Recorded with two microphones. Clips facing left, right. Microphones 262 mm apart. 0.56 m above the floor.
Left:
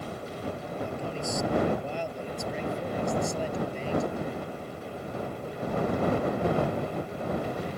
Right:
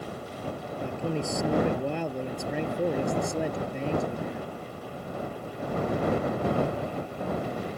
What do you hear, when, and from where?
0.8 s a man speaking: 65° right (ahead or behind)